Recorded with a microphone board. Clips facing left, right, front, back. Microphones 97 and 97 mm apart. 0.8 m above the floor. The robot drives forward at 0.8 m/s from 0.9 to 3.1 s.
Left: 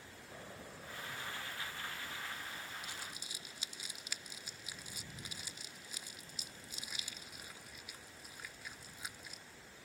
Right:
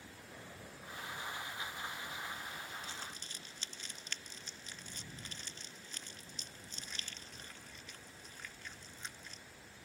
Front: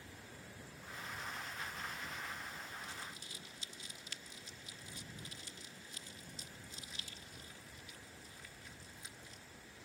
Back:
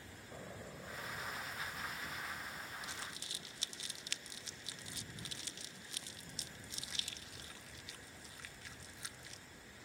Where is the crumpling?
165° left; by 9.4 s 170° left.